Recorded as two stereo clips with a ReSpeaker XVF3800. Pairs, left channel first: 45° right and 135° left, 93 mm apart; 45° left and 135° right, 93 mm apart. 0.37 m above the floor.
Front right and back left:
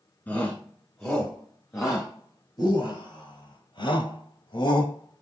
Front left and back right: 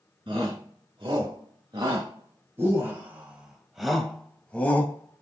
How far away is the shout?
About 3.5 m.